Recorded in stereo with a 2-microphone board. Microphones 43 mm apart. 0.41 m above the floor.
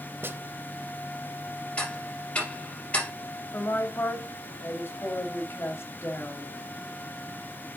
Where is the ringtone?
I don't hear a ringtone.